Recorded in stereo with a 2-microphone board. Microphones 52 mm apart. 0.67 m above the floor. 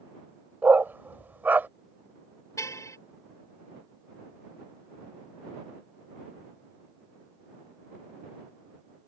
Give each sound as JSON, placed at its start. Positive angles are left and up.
{"t": 0.6, "sound": "a dog barking", "side_deg": -40}
{"t": 2.6, "sound": "a car horn", "side_deg": 75}